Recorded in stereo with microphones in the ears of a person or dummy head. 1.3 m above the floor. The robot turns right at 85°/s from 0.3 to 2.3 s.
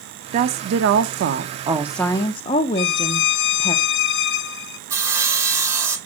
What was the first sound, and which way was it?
A woman speaking, 130° right.